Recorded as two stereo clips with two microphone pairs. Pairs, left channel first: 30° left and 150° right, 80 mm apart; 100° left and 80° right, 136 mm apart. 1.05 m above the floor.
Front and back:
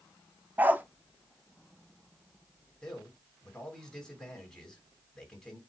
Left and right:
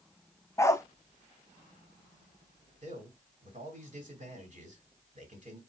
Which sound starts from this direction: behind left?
A dog barking, at 0.6 s.